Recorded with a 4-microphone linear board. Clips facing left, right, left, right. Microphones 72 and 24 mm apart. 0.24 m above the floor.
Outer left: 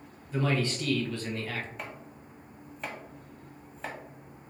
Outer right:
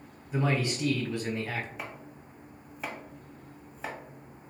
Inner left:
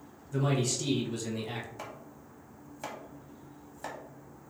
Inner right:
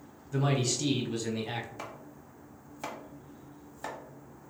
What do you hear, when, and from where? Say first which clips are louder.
0.3 s a man speaking: even, inner right 1 dB; 15° right (ahead or behind), 1.0 m
1.8 s chopping: even, inner right 1 dB; 5° right (ahead or behind), 0.9 m